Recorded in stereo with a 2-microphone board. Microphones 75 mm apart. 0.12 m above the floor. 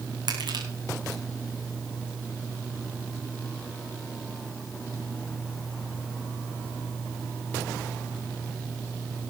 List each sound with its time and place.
0.3 s crushing: 70° right (ahead or behind), 4.5 m